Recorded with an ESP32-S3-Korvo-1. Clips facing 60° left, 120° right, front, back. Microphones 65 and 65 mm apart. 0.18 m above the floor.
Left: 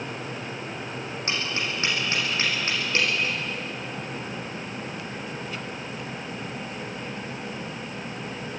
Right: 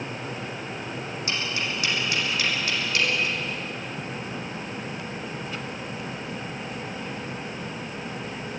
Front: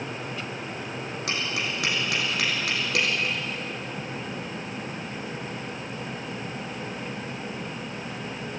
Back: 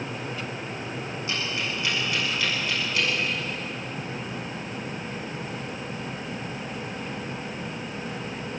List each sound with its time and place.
1.3 s tapping: straight ahead, 7 m